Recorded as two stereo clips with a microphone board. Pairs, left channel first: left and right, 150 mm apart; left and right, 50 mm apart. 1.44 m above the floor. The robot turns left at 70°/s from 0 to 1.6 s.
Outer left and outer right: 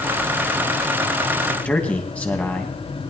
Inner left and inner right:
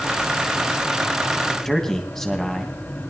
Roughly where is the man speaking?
Centre.